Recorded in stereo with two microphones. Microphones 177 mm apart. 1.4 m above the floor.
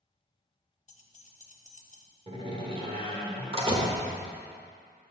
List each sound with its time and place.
0.9 s keys jangling: 40° left (ahead or behind), 0.6 m
2.3 s a door slam: 30° right (ahead or behind), 1.2 m